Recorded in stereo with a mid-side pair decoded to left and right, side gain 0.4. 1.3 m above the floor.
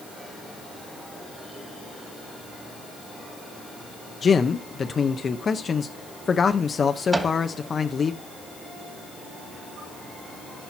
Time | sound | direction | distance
4.2 | a man speaking | 45° left | 0.8 m
7.1 | a microwave | 15° right | 2 m